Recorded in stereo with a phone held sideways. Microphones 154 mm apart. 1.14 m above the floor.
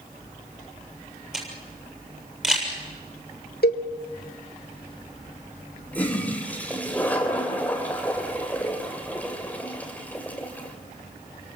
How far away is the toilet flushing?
About 3.5 m.